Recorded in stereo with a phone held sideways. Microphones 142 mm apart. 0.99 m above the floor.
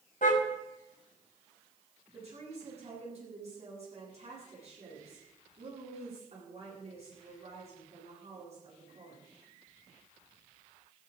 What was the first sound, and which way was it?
A car horn, 65° left (ahead or behind).